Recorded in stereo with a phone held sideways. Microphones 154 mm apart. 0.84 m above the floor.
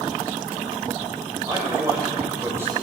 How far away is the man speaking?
About 4.5 m.